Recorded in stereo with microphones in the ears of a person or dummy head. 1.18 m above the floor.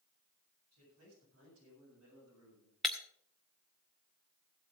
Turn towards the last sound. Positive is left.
turn(degrees=0)  # may be behind; listen again after turning